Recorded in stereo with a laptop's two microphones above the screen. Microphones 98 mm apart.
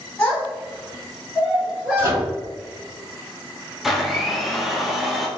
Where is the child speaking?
25° left (ahead or behind), 1.0 m; by 2.2 s 30° right (ahead or behind), 1.5 m.